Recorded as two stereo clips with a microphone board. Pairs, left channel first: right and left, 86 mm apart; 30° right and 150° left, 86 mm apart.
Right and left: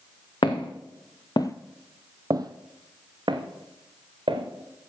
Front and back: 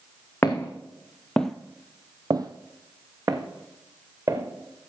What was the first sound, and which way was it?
Footsteps, 90° right.